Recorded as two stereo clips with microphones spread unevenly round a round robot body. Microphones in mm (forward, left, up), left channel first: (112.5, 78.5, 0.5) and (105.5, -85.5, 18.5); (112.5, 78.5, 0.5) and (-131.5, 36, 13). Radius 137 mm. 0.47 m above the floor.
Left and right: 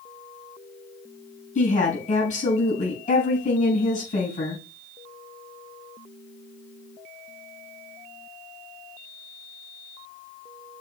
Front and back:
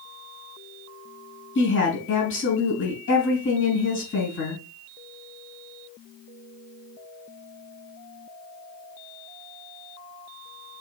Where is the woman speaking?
45° left, 4.5 m.